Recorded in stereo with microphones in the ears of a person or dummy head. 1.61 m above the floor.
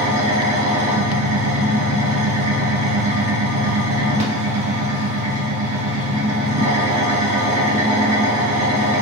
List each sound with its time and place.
0.0 s an engine running: 40° right (ahead or behind), 1.0 m